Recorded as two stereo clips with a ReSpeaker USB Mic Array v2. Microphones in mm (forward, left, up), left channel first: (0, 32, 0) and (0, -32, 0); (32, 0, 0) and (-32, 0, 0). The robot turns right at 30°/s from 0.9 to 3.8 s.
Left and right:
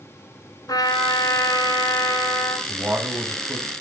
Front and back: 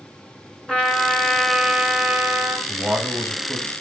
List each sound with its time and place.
0.7 s a trumpet: 75° left, 2 m; by 2.6 s 125° left, 2 m
2.7 s a man speaking: 130° right, 1.1 m; by 3.7 s 100° right, 1.1 m